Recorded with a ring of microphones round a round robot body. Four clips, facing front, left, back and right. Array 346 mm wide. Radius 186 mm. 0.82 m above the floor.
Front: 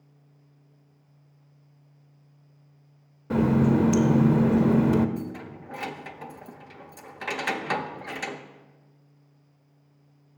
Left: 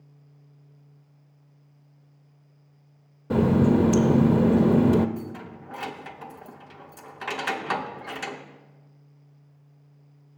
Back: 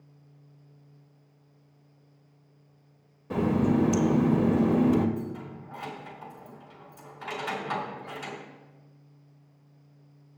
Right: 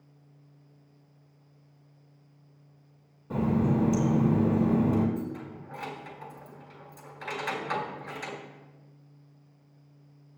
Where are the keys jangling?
35° left, 0.6 m.